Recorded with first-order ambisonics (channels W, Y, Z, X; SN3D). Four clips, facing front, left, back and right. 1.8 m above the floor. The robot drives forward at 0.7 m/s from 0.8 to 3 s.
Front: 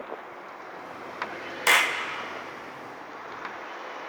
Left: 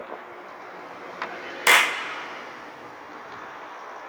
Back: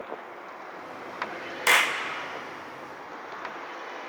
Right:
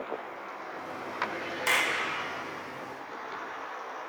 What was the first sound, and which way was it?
A clap, 85° left.